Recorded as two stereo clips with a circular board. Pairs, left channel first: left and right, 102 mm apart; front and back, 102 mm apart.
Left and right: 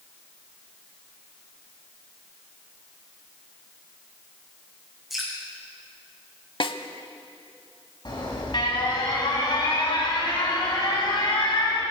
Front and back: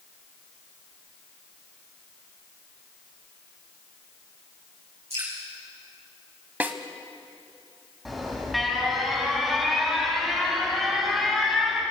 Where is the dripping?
Straight behind, 5.5 m.